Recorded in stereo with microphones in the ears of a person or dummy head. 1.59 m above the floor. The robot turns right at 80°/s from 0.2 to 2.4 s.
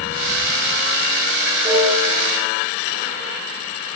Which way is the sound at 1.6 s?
170° right.